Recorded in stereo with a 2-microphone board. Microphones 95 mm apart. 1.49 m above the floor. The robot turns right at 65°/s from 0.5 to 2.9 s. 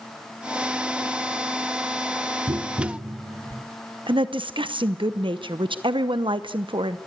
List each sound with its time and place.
2.5 s tapping: 75° right (ahead or behind), 1.2 m; by 3.6 s 65° right (ahead or behind), 1.2 m
4.1 s a woman speaking: 65° right (ahead or behind), 0.8 m